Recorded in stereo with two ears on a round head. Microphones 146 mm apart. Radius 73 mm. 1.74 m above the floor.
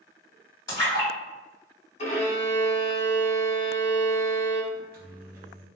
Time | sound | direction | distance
0.7 | a splash | 20° left (ahead or behind) | 1.8 m
2.0 | a violin | 45° left (ahead or behind) | 1.0 m
4.7 | a microwave | 60° right (ahead or behind) | 0.8 m